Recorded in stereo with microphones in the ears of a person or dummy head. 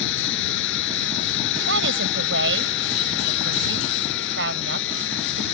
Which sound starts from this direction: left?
A machine running, at 0.0 s.